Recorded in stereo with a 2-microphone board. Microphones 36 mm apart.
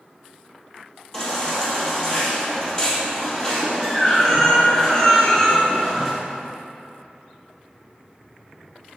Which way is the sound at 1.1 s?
20° left (ahead or behind).